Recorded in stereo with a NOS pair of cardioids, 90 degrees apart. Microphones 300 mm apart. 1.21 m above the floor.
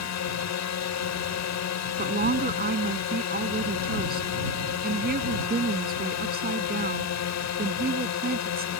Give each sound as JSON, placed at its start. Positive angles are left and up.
{"t": 0.0, "sound": "a drone", "azimuth_deg": 65}
{"t": 2.0, "sound": "a woman speaking", "azimuth_deg": -30}